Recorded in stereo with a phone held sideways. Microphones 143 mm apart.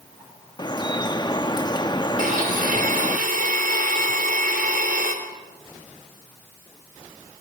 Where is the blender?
80° right, 3.5 m.